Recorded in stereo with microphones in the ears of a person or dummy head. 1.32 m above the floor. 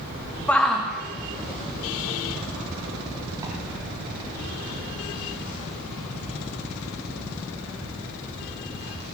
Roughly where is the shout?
Centre.